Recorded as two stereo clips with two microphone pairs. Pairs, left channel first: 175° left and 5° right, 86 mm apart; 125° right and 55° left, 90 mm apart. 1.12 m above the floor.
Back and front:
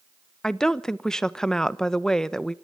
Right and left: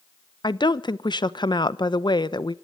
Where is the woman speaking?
100° right, 0.9 m.